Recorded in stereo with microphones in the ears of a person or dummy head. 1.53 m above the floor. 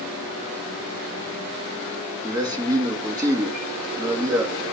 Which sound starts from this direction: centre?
A man speaking, at 2.2 s.